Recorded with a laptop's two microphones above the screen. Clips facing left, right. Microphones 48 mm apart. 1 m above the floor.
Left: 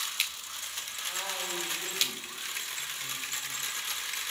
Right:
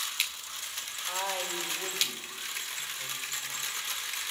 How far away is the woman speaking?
About 4 m.